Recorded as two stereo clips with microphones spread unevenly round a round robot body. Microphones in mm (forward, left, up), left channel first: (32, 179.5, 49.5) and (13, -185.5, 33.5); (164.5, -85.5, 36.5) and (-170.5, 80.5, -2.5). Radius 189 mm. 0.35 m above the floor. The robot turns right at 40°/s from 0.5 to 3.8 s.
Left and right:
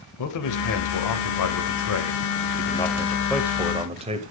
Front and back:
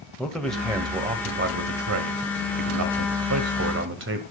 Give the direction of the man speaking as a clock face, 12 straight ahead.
10 o'clock.